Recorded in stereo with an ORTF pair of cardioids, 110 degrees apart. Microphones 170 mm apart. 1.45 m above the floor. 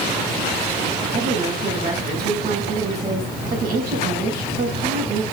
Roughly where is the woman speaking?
Ahead right.